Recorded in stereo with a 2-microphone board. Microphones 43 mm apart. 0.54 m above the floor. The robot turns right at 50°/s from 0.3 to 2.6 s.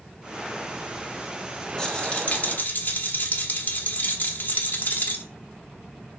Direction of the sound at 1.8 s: 20° left.